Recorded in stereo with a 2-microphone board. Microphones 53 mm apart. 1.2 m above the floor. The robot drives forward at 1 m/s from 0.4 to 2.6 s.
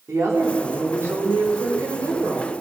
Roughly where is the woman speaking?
Right.